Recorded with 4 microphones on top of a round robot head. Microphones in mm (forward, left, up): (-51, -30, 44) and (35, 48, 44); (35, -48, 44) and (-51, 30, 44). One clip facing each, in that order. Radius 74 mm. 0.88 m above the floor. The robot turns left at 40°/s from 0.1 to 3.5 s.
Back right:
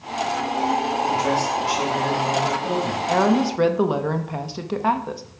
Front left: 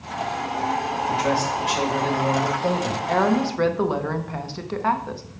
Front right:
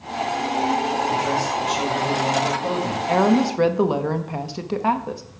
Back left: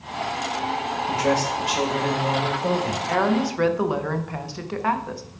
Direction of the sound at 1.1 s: 135° left.